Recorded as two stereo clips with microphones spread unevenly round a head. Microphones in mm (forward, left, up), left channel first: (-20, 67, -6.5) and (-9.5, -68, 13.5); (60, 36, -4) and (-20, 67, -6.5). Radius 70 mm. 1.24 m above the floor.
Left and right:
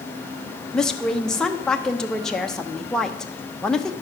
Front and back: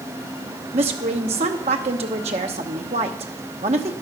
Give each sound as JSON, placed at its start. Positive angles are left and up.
{"t": 0.7, "sound": "a woman speaking", "azimuth_deg": 180, "distance_m": 0.9}